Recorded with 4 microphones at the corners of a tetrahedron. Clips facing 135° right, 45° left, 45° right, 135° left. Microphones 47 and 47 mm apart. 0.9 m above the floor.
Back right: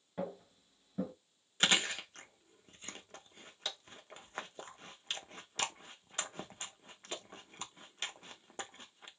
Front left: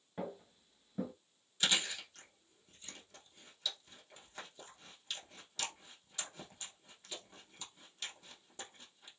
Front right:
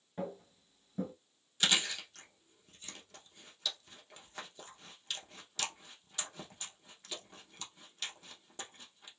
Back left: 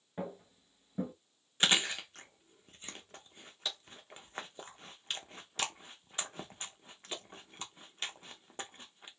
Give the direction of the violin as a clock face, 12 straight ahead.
No violin in this recording.